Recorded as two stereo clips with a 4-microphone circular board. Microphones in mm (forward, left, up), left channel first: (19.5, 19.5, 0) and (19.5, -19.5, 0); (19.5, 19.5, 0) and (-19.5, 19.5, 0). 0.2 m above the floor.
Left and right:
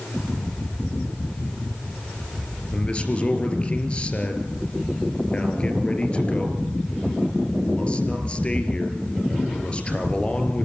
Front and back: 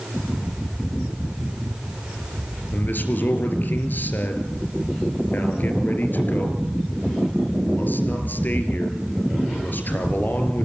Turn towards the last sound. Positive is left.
turn(degrees=30)